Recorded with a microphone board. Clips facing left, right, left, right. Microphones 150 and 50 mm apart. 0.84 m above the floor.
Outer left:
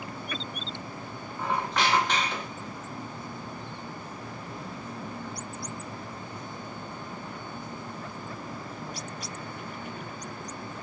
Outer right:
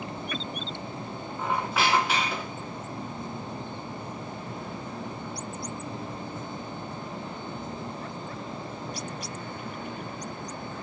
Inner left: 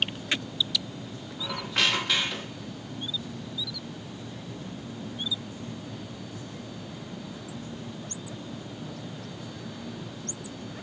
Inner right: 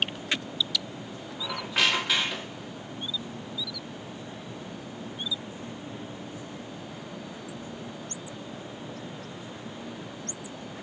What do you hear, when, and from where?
1.4 s a squeak: 5° right (ahead or behind), 0.6 m